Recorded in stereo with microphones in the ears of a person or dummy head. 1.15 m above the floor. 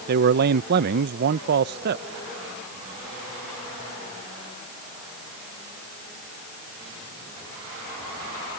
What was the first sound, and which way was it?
A man speaking, 55° right (ahead or behind).